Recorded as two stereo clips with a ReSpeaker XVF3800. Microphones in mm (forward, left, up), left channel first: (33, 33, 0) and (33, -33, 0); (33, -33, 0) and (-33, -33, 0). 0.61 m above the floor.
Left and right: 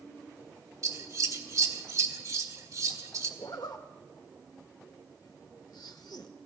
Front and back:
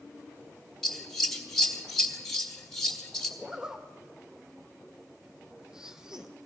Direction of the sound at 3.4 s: 100° left.